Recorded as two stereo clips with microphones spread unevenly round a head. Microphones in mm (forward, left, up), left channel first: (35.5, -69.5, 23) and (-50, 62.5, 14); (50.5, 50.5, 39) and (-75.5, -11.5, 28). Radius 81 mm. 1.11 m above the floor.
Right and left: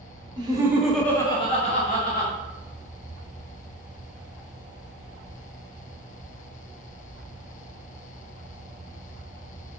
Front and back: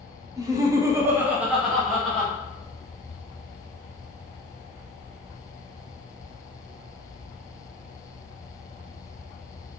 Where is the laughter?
160° left, 0.9 m; by 2.3 s 65° right, 1.2 m.